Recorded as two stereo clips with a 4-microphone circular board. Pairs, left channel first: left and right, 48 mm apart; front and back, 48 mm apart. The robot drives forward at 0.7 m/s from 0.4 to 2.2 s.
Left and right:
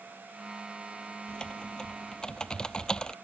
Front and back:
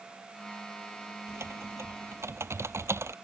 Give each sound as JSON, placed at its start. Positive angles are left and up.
{"t": 1.3, "sound": "typing on a keyboard", "azimuth_deg": 160}